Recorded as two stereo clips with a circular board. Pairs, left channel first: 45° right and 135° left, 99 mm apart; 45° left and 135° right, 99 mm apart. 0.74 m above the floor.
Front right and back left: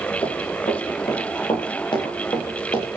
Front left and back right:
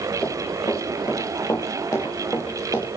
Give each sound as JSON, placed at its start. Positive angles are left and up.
{"t": 0.2, "sound": "running footsteps", "azimuth_deg": -15, "distance_m": 8.0}